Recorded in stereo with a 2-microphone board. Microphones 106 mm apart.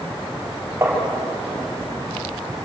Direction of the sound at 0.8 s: 30° right (ahead or behind).